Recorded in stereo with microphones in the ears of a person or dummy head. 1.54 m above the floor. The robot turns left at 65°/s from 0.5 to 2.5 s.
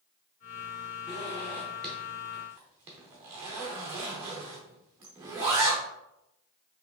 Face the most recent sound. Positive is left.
turn(degrees=-10)  # may be behind; listen again after turning